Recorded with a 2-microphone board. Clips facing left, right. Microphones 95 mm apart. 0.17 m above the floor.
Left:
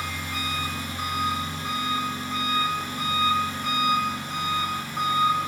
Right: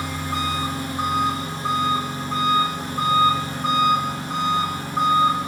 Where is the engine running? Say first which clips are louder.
Right 6 dB; 35° right (ahead or behind), 6 m.